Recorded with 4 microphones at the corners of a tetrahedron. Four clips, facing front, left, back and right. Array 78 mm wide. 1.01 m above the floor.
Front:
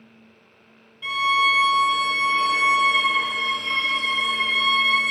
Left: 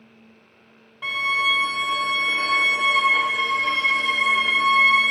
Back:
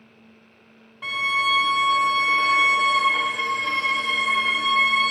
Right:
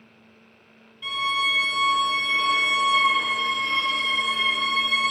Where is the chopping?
No chopping in this recording.